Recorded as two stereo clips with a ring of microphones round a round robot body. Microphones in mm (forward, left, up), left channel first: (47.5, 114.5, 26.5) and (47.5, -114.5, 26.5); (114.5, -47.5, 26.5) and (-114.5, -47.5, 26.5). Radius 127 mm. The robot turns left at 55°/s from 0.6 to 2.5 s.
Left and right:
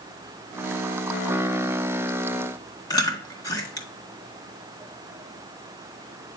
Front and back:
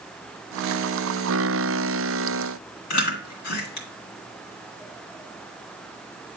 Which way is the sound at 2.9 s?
15° left.